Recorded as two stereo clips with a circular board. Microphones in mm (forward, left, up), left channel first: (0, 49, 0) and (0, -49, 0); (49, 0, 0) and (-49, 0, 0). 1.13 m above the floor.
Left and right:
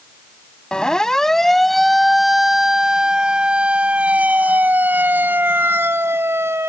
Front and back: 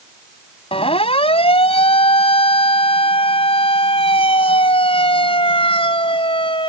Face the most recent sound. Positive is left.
turn(degrees=-25)